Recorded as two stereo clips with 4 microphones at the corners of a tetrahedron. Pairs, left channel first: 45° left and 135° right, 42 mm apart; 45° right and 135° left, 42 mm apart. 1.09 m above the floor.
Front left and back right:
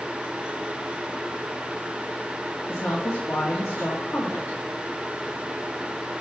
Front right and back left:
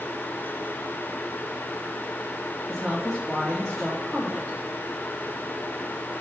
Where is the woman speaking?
45° left, 1.2 m.